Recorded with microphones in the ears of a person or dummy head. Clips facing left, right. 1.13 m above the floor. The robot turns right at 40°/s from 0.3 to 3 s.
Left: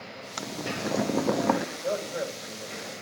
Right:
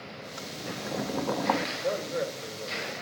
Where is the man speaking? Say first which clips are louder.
Even; straight behind, 4 m; by 2.9 s 130° right, 4 m.